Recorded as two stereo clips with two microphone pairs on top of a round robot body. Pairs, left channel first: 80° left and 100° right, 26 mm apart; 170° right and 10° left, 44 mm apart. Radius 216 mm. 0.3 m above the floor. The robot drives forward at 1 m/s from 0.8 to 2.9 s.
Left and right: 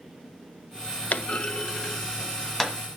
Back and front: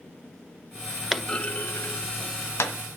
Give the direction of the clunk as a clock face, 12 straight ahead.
9 o'clock.